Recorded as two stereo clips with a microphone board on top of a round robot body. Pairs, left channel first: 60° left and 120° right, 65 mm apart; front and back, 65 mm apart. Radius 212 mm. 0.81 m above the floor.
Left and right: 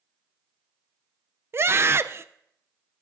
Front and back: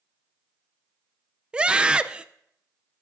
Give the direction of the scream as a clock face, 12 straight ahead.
4 o'clock.